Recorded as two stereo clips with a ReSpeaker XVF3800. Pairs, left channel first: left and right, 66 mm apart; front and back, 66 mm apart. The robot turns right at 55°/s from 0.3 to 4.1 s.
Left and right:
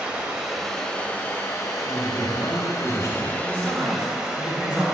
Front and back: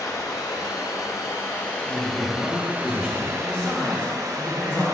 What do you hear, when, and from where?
0.0 s running water: 15° right, 0.9 m; by 5.0 s 170° right, 0.9 m
1.9 s a man speaking: 40° left, 1.9 m; by 3.3 s 120° left, 1.9 m
3.4 s a man speaking: 70° right, 1.6 m; by 4.8 s 30° right, 1.6 m